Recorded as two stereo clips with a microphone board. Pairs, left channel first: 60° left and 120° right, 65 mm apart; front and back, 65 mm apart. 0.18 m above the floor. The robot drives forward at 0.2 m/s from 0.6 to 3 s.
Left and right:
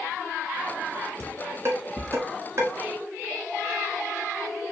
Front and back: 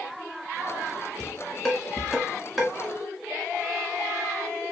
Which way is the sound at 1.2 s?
80° right.